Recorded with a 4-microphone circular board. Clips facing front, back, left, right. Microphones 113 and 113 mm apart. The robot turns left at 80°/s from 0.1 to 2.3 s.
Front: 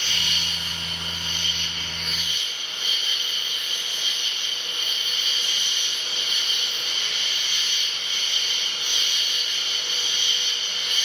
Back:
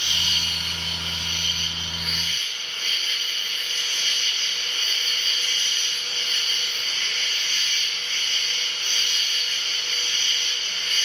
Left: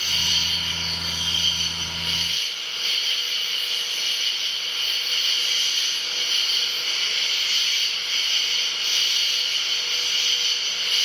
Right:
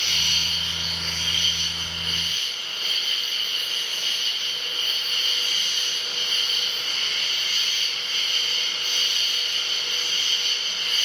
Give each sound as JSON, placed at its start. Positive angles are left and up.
{"t": 0.0, "sound": "an insect", "azimuth_deg": -110, "distance_m": 1.3}